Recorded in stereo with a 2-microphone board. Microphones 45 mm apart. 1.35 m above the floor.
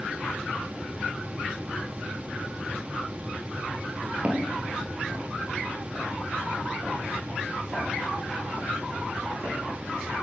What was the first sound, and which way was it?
Footsteps, 30° right (ahead or behind).